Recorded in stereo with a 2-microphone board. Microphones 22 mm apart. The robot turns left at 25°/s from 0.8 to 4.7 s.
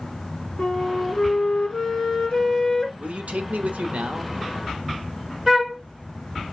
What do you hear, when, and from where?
0.6 s a flute: 80° left, 1.4 m; by 2.9 s 30° left, 1.4 m
3.0 s a man speaking: 70° right, 0.6 m; by 4.3 s 105° right, 0.6 m
5.5 s a flute: 20° right (ahead or behind), 1.1 m